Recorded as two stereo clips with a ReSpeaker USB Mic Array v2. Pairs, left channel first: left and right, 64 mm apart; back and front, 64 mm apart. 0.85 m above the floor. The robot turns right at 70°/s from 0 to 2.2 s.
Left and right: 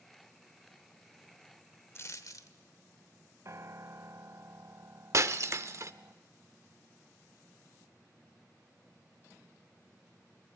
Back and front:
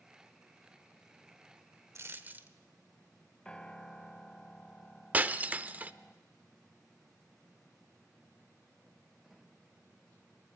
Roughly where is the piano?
Right.